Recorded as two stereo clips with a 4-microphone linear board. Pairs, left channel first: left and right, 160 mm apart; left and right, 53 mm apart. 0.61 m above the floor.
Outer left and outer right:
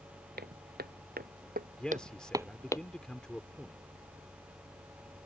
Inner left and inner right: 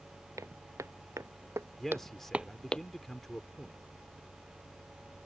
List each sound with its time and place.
0.4 s footsteps: 80° right; by 2.8 s 25° left (ahead or behind)
1.8 s a man speaking: 5° left (ahead or behind)